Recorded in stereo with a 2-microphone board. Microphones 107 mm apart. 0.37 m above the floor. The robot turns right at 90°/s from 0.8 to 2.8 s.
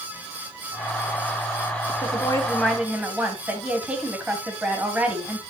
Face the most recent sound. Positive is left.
turn(degrees=-170)